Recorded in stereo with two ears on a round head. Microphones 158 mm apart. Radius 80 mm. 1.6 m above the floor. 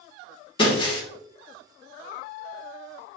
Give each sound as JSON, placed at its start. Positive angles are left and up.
{"t": 0.6, "sound": "breaking glass", "side_deg": 30, "distance_m": 3.5}